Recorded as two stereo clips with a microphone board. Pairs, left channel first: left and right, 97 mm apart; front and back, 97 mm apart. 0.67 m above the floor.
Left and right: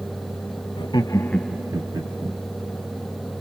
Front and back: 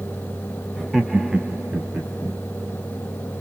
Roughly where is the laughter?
Left.